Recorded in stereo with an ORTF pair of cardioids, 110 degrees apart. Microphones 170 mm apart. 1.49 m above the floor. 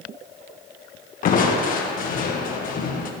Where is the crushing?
55° left, 1.3 m.